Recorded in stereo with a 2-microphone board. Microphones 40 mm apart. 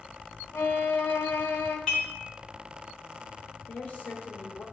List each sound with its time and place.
0.5 s a violin: 60° left (ahead or behind), 1.5 m
1.9 s dishes clattering: 15° left (ahead or behind), 3.5 m
3.7 s a woman speaking: 35° left (ahead or behind), 1.0 m